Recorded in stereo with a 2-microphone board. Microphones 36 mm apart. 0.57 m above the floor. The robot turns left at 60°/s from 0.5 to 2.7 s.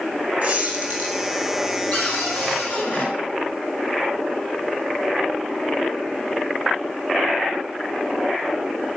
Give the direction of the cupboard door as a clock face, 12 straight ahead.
8 o'clock.